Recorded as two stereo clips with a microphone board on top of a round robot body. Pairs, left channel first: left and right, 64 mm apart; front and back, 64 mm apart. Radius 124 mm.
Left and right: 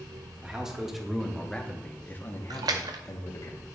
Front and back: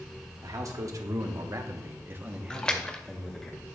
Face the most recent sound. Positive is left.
turn(degrees=-75)